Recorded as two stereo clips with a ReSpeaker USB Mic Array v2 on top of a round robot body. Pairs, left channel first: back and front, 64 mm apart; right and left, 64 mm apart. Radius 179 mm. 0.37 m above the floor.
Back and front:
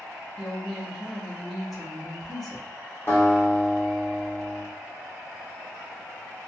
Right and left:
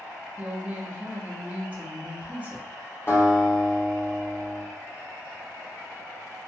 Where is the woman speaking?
90° left, 1.3 m.